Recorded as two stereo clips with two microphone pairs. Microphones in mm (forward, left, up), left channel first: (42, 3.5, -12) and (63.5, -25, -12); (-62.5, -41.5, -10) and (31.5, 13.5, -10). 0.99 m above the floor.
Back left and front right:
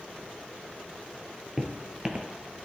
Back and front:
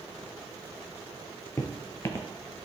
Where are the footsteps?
110° right, 1.1 m.